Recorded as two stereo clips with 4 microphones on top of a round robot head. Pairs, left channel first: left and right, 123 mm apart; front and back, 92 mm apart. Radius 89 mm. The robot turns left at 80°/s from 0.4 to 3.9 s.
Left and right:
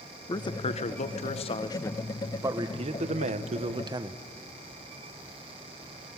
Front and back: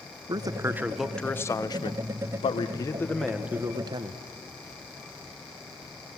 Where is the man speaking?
140° left, 1.0 m; by 4.2 s 140° right, 1.0 m.